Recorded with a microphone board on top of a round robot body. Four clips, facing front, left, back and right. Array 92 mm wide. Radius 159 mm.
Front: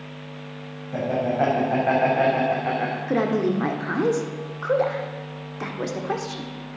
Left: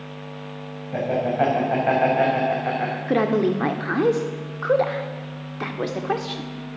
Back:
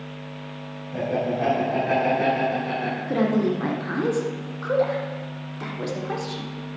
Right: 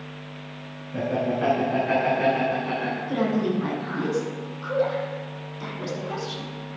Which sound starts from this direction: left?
A woman speaking, at 3.1 s.